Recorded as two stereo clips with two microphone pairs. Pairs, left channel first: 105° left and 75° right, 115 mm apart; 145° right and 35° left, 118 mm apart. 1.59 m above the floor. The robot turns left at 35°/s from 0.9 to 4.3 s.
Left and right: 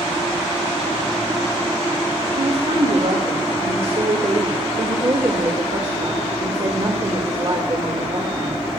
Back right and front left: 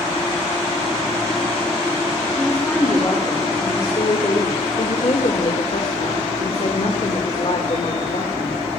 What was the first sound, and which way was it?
A woman speaking, 55° right.